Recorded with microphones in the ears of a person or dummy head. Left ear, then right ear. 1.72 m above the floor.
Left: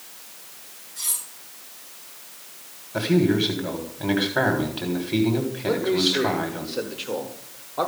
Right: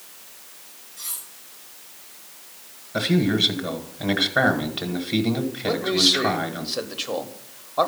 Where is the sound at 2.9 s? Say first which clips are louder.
Left 1 dB; 5° right (ahead or behind), 1.3 m.